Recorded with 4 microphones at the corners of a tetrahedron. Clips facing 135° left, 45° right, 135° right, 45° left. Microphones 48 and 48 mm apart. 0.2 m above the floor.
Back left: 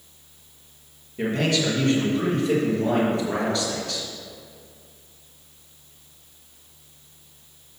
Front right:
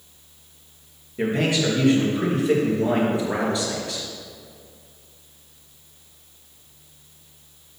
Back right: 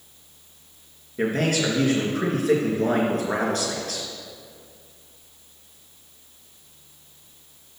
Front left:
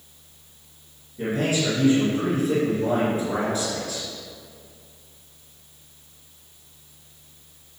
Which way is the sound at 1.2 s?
115° right.